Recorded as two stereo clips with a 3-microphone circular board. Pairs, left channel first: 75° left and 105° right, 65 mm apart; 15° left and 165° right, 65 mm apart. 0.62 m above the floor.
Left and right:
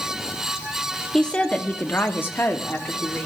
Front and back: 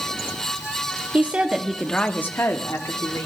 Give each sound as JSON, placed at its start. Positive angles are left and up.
{"t": 1.1, "sound": "a woman speaking", "azimuth_deg": 145, "distance_m": 1.3}